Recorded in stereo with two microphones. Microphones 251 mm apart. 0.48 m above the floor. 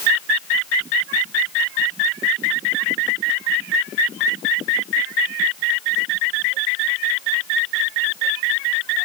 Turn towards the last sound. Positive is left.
No sound to turn to.